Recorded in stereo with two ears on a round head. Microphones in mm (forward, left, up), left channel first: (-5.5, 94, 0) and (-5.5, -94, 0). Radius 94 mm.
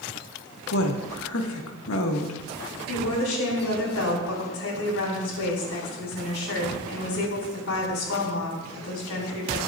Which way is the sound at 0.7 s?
70° left (ahead or behind).